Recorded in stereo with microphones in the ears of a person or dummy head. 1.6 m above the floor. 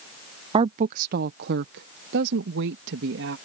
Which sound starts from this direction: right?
A woman speaking, at 0.5 s.